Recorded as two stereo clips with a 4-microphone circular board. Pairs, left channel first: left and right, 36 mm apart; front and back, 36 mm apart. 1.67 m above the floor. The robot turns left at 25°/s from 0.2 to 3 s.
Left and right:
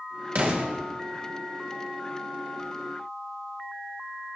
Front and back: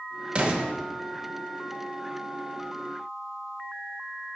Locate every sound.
0.3 s an explosion: 120° right, 2 m; by 0.7 s 130° right, 2 m